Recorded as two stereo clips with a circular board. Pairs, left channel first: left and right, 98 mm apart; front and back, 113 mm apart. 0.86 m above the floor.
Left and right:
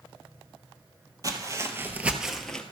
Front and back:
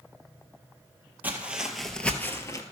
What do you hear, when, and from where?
1.2 s footsteps: 115° right, 1.1 m; by 2.6 s 15° left, 0.9 m